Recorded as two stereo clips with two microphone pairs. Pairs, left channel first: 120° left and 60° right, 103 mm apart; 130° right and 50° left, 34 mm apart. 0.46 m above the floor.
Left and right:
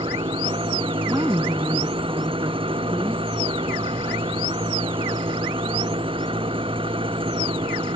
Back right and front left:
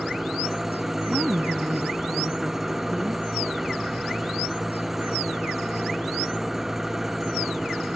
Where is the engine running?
25° right.